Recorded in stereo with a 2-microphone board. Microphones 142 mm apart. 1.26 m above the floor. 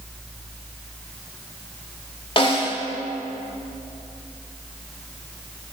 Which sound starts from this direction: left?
A snare drum, at 2.4 s.